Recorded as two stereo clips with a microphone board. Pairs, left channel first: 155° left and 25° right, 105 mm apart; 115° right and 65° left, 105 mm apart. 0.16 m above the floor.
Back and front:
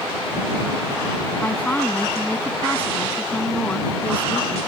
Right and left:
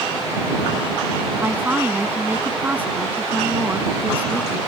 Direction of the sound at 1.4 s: 110° left.